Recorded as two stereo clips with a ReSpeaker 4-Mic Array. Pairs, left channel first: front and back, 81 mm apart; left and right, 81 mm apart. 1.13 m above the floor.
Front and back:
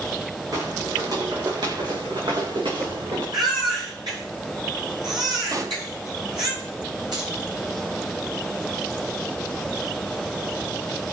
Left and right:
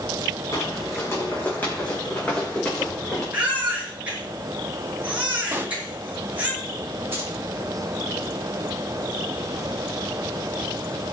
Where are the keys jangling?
150° right, 4.5 m.